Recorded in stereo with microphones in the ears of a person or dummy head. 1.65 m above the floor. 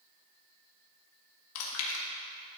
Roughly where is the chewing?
Left.